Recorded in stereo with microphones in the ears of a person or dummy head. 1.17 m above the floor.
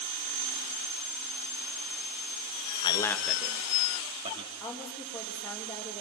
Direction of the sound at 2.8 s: 30° left (ahead or behind).